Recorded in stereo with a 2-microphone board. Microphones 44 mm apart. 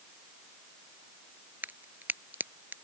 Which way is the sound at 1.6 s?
45° right (ahead or behind).